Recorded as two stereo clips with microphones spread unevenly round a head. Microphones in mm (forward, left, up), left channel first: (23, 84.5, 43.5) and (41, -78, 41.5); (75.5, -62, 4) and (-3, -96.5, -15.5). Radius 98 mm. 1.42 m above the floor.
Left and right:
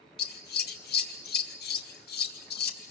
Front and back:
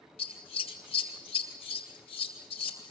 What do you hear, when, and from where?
0.2 s scissors: 70° left, 2.5 m